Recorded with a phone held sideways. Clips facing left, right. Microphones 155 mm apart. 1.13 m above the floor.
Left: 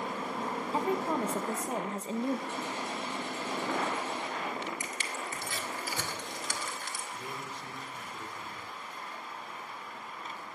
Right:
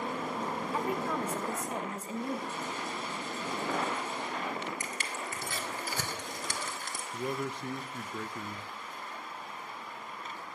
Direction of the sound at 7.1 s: 70° right (ahead or behind).